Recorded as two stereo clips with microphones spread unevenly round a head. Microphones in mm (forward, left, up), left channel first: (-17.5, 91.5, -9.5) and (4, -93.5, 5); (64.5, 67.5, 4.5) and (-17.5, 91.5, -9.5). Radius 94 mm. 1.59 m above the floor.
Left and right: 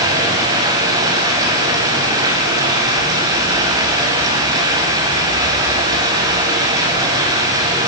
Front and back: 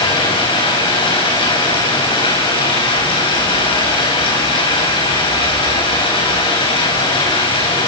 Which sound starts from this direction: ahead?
Running water, at 0.0 s.